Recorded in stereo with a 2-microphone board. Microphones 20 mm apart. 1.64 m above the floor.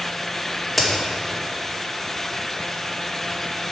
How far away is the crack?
About 2 m.